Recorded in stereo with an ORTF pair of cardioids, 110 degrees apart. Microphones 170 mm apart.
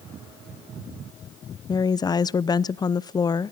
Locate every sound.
1.7 s a woman speaking: 25° left, 0.6 m